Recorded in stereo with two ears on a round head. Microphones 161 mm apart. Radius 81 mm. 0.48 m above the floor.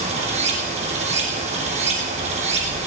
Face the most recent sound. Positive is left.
turn(degrees=-40)  # may be behind; listen again after turning